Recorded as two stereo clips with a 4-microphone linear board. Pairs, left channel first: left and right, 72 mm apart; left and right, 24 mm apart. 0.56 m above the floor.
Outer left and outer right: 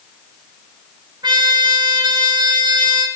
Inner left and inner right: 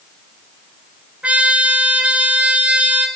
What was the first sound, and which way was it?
A trumpet, 80° right.